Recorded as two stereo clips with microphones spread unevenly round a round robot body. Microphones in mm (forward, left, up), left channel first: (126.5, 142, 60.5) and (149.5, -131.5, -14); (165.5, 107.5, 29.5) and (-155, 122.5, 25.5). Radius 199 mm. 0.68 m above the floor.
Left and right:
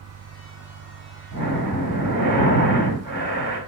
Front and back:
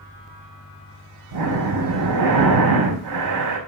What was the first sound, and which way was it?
Breathing, 165° left.